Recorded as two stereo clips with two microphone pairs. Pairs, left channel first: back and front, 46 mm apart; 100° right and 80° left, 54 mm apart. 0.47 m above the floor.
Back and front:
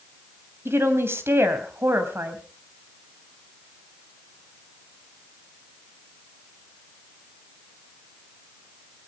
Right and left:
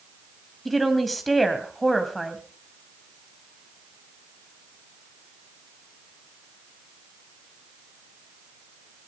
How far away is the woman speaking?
About 2.5 m.